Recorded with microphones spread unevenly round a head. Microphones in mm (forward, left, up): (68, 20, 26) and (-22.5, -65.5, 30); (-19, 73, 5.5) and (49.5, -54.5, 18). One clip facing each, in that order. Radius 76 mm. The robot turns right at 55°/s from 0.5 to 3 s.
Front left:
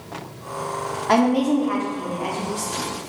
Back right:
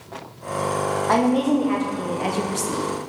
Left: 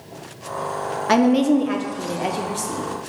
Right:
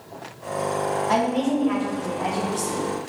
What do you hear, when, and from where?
1.1 s a woman speaking: 120° left, 0.5 m; by 2.8 s 145° right, 0.5 m